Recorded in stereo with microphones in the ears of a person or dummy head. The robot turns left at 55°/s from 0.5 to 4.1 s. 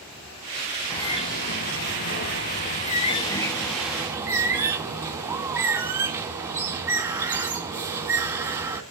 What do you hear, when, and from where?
0.9 s a bird: 160° left, 3 m; by 8.8 s 15° right, 3 m